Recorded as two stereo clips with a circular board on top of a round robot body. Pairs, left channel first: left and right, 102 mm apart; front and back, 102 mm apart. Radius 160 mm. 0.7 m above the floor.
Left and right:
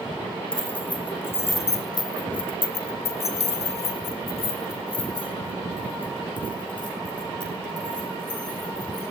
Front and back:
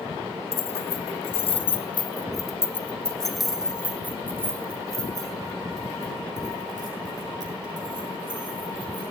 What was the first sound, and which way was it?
Keys jangling, 10° left.